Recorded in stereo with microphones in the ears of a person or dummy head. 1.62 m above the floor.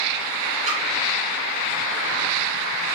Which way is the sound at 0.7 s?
40° right (ahead or behind).